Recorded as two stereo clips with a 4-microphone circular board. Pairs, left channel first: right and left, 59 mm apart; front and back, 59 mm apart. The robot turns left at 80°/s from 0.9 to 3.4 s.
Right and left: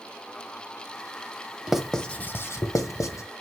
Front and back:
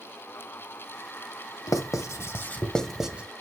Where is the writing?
10° left, 0.9 m; by 3.2 s 115° right, 0.9 m.